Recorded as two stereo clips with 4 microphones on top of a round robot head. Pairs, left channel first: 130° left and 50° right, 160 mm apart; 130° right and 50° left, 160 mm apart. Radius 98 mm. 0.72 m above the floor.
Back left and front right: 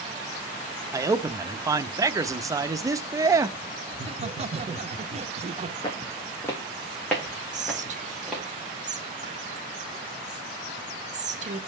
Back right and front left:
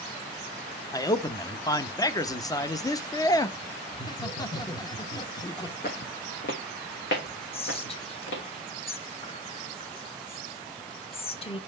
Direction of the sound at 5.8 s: 165° right.